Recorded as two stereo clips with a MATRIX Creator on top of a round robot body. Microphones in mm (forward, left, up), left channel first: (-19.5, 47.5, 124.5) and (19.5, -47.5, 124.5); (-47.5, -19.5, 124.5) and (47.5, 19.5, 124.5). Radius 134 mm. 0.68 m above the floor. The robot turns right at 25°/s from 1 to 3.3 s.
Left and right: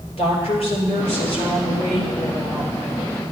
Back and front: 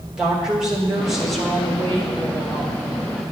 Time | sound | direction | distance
0.2 | a woman speaking | 105° left | 3 m